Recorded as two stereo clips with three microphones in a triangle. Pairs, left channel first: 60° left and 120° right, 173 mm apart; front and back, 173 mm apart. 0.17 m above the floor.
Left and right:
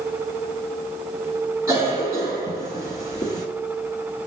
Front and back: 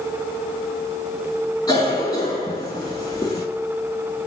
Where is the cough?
60° right, 2.0 m.